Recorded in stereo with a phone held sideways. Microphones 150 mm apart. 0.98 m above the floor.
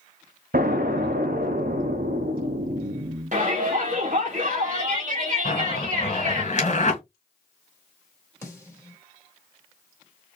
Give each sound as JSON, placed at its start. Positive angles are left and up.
{"t": 0.5, "sound": "an explosion", "side_deg": -90, "distance_m": 0.8}
{"t": 3.3, "sound": "a shout", "side_deg": -55, "distance_m": 1.2}
{"t": 5.5, "sound": "a zipper", "side_deg": 55, "distance_m": 2.5}
{"t": 8.4, "sound": "a snare drum", "side_deg": 20, "distance_m": 2.5}